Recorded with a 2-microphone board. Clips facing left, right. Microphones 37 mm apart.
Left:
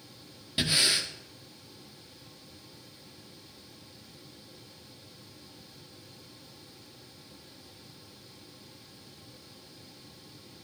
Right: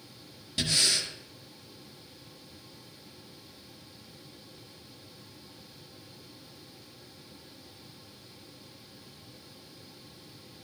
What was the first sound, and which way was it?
Breathing, 20° left (ahead or behind).